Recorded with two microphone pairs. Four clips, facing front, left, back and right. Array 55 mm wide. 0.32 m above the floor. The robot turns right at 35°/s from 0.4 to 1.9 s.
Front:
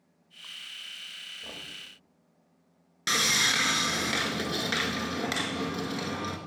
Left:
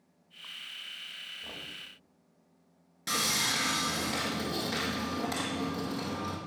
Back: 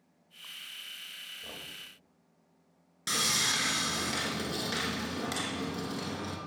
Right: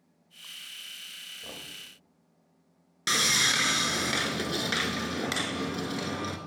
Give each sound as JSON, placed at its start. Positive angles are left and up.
{"t": 1.4, "sound": "knocking", "azimuth_deg": -70, "distance_m": 1.3}
{"t": 3.1, "sound": "sawing", "azimuth_deg": -45, "distance_m": 0.8}